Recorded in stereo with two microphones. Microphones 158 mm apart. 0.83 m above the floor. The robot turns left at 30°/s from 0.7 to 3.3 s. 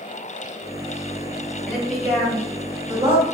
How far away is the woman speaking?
About 1.2 m.